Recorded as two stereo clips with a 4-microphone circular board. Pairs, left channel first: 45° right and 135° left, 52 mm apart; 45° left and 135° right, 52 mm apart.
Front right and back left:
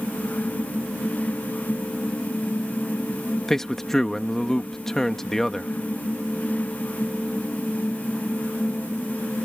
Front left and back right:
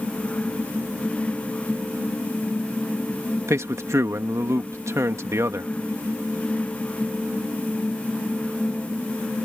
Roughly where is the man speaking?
Behind right.